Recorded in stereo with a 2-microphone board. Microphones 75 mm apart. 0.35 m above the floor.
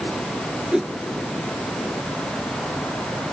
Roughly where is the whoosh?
Centre.